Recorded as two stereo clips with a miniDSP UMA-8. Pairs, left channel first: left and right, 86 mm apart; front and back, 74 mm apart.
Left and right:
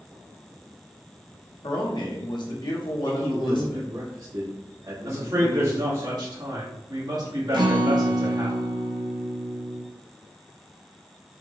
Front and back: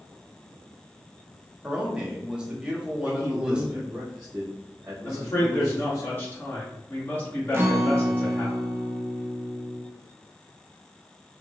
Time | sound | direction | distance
1.6 | a man speaking | 105° left | 1.4 m
3.0 | a man speaking | 110° right | 1.2 m
5.0 | a man speaking | 60° right | 2 m
7.5 | a guitar | 120° right | 0.8 m